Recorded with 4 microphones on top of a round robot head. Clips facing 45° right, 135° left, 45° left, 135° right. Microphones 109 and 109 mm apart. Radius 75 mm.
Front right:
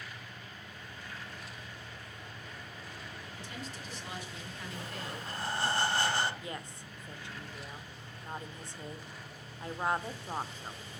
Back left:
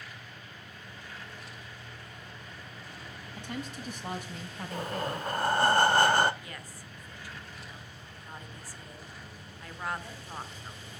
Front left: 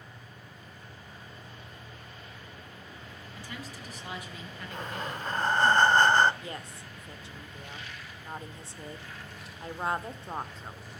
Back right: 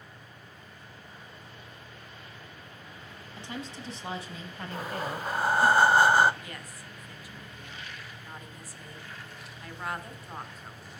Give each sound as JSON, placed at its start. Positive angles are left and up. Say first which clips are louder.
{"t": 3.4, "sound": "a woman speaking", "louder": "back left 8 dB, back right 4 dB", "azimuth_deg": 160, "distance_m": 4.5}
{"t": 4.7, "sound": "breathing", "louder": "back left 10 dB, back right 3 dB", "azimuth_deg": 145, "distance_m": 1.1}
{"t": 6.4, "sound": "a woman speaking", "louder": "front right 3 dB, front left 3 dB", "azimuth_deg": 5, "distance_m": 1.7}